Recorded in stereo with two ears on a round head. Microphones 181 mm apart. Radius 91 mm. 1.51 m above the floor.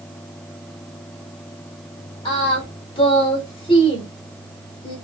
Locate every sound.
2.2 s singing: 25° left (ahead or behind), 1.3 m